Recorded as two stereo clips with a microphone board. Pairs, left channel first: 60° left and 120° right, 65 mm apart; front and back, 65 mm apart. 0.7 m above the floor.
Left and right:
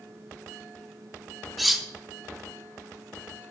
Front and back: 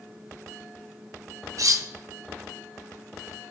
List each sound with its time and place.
1.6 s cutlery clinking: 150° left, 0.5 m